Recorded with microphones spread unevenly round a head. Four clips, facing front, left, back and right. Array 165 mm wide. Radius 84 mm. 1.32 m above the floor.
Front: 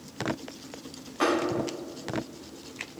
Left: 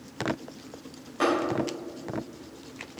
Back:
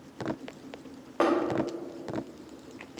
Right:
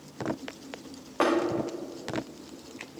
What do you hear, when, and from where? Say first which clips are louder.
1.2 s tapping: even, back 1 dB; 150° right, 3 m